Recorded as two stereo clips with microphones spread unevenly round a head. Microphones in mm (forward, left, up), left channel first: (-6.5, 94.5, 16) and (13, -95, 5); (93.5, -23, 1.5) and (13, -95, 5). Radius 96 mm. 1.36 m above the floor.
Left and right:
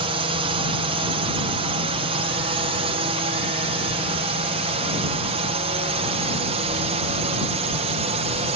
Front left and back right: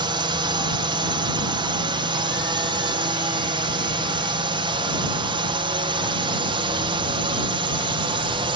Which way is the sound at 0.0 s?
130° right.